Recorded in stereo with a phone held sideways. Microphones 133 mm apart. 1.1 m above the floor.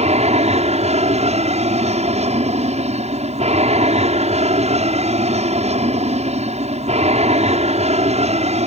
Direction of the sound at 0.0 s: 55° right (ahead or behind).